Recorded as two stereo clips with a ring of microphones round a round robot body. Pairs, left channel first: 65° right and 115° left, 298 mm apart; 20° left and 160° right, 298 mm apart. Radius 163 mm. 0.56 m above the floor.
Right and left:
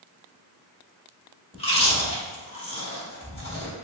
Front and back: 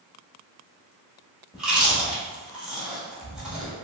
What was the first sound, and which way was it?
Chewing, 75° right.